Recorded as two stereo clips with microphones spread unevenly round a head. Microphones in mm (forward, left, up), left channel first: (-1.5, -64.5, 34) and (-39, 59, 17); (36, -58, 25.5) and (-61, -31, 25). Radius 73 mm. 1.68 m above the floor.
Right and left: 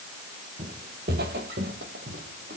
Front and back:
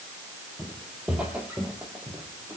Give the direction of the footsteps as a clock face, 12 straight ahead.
9 o'clock.